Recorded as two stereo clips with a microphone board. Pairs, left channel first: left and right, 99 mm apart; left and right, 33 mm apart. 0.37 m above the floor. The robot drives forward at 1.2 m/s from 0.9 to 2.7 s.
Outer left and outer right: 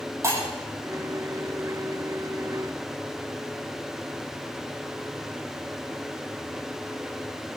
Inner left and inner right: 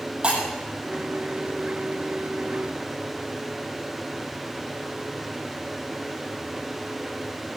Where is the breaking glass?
30° right (ahead or behind), 7.5 m.